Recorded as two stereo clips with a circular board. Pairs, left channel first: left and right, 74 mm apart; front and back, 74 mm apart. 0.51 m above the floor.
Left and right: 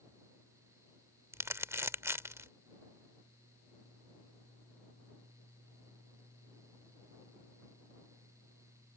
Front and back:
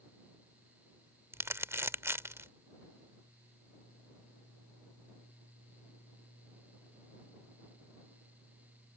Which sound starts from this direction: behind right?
Crumpling, at 1.3 s.